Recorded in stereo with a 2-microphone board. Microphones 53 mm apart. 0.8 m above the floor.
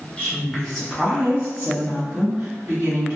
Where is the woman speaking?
25° left (ahead or behind), 0.8 m; by 3.2 s 60° right (ahead or behind), 1.4 m.